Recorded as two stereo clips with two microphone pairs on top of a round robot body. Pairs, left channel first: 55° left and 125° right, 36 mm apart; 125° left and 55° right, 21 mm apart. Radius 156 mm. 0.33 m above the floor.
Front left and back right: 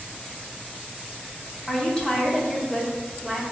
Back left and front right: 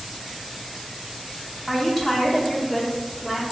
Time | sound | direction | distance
1.7 | a woman speaking | 90° left | 1.2 m